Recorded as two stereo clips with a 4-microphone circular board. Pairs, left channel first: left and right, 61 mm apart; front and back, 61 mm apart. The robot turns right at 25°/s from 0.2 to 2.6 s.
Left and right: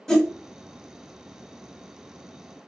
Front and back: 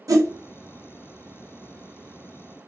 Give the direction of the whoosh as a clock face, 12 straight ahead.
6 o'clock.